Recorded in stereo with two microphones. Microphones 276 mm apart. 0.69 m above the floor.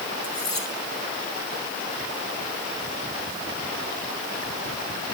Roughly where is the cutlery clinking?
Left.